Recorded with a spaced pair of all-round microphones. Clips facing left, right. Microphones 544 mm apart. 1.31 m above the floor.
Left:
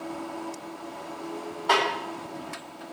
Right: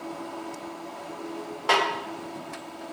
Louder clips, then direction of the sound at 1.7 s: Even; 90° right.